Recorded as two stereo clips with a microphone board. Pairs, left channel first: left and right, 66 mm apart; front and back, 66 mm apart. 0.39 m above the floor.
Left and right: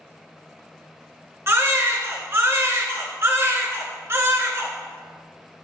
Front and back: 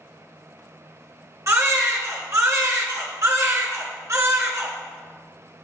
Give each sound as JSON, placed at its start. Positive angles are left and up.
{"t": 1.5, "sound": "a baby crying", "azimuth_deg": -135, "distance_m": 2.0}